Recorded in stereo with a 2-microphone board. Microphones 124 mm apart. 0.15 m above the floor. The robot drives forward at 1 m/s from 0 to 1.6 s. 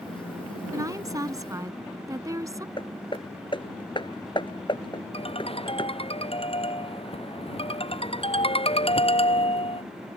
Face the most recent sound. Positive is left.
turn(degrees=50)  # may be behind; listen again after turning